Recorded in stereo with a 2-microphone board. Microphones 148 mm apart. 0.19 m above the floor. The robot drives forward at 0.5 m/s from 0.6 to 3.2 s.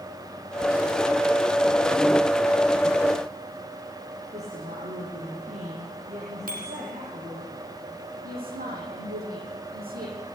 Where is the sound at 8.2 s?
80° right, 7.5 m.